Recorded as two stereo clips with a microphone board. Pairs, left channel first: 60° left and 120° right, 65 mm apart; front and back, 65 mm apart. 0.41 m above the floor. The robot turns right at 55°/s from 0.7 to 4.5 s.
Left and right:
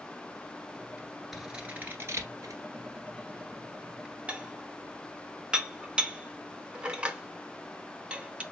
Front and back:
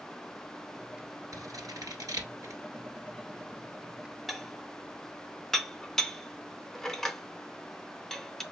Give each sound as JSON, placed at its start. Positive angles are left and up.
{"t": 1.3, "sound": "scissors", "azimuth_deg": 150, "distance_m": 1.3}
{"t": 4.3, "sound": "dishes clattering", "azimuth_deg": -90, "distance_m": 0.6}